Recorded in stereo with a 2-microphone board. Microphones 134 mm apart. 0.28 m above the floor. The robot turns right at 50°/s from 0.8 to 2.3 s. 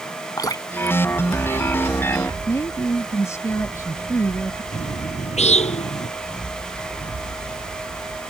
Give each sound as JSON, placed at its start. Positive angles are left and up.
{"t": 0.4, "sound": "dripping", "side_deg": 25}
{"t": 2.5, "sound": "a woman speaking", "side_deg": 20}
{"t": 4.7, "sound": "a bird", "side_deg": 55}